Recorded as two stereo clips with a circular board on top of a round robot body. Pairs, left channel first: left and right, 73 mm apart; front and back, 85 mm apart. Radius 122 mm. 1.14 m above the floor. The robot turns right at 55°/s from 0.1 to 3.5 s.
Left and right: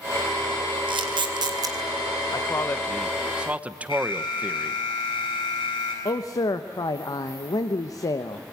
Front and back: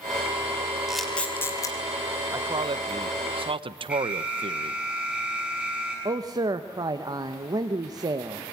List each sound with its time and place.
0.9 s a camera shutter: 95° right, 2.5 m; by 1.8 s 45° right, 2.5 m
2.3 s a man speaking: 130° left, 1.0 m; by 4.8 s 165° right, 1.0 m
3.9 s an alarm: 105° left, 8 m
6.0 s a man speaking: 135° left, 0.9 m